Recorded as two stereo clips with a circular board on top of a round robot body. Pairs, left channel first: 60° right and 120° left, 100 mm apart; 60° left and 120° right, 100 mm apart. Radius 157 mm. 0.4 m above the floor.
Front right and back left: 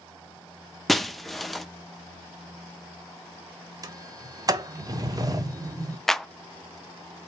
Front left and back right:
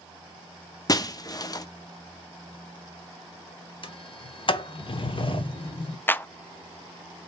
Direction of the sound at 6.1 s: 20° left.